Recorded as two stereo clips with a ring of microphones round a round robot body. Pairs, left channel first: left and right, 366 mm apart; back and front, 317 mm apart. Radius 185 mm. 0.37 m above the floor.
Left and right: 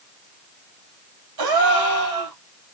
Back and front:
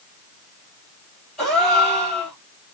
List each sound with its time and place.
1.4 s a gasp: 90° right, 2.5 m